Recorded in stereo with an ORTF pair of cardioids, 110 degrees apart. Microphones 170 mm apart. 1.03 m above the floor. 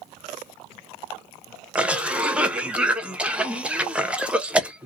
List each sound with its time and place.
1.8 s a cough: 5° right, 0.7 m